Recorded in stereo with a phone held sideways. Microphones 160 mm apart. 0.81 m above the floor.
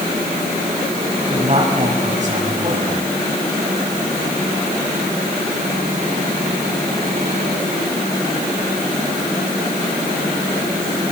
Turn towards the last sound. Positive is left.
turn(degrees=-50)  # may be behind; listen again after turning